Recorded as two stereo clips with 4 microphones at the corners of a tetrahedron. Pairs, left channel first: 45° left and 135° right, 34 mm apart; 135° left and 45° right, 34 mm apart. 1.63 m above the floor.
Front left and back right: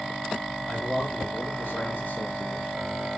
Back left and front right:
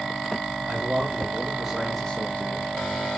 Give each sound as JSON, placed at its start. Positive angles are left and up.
{"t": 0.7, "sound": "a man speaking", "azimuth_deg": 5, "distance_m": 1.9}